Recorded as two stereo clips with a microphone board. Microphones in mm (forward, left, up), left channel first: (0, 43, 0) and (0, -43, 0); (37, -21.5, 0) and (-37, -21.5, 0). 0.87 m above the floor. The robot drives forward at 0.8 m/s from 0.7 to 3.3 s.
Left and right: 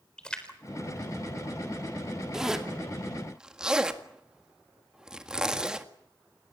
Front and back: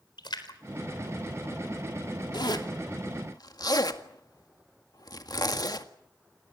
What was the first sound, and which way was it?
A splash, 10° left.